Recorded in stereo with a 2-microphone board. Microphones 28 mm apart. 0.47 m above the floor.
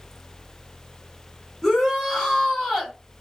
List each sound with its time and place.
1.6 s a shout: centre (ahead or behind), 2.5 m